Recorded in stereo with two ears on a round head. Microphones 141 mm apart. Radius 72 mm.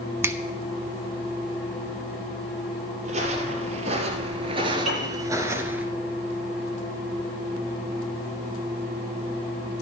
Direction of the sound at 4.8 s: 50° right (ahead or behind).